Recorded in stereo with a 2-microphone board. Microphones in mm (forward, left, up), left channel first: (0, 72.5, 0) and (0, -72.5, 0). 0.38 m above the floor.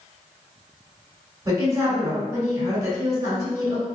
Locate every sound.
1.4 s a woman speaking: 25° right (ahead or behind), 1.9 m